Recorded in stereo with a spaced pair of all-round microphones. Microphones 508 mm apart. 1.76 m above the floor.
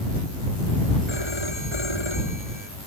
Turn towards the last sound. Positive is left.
turn(degrees=-65)  # may be behind; listen again after turning